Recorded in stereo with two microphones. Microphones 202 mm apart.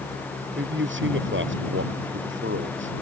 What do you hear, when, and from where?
0.6 s a man speaking: 70° right (ahead or behind)